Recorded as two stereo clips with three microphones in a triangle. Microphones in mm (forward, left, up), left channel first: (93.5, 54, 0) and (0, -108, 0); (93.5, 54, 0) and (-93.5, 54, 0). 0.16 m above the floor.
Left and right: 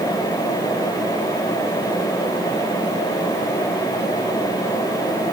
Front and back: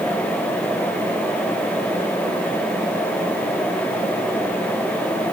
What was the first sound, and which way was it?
Only background noise.